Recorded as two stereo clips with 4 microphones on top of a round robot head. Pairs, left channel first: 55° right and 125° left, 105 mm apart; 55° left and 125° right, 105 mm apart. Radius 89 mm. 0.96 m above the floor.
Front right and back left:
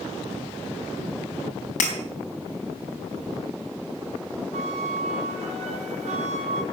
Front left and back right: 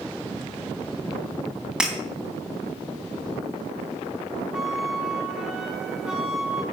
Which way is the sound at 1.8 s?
40° right.